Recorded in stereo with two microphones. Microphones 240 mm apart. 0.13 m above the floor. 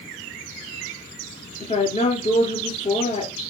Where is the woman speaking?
30° left (ahead or behind), 2.5 m.